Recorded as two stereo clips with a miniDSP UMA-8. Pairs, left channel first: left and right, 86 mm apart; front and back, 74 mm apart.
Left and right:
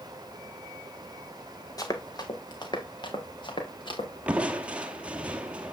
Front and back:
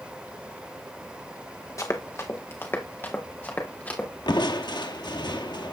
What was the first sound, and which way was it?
Running footsteps, 45° left.